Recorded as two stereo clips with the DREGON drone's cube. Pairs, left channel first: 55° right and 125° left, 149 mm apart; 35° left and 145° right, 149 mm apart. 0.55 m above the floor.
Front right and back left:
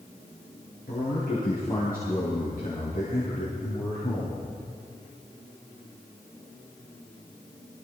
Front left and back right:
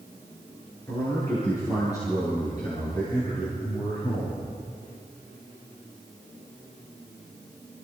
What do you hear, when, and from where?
0.9 s a man speaking: 40° right, 8 m; by 4.4 s 25° right, 9.5 m